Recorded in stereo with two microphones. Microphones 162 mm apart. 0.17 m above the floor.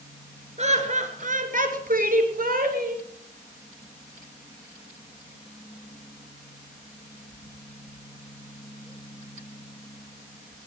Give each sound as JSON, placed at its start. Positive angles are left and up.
{"t": 0.6, "sound": "laughter", "side_deg": -45, "distance_m": 3.0}